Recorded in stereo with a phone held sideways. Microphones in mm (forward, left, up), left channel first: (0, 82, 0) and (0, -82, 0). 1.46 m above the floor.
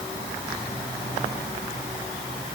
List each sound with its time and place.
Only background noise.